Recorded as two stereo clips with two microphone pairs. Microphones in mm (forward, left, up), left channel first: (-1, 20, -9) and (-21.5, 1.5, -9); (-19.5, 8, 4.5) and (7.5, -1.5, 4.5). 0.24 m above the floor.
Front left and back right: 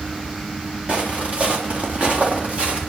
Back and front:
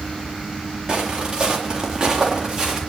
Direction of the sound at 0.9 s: 90° right.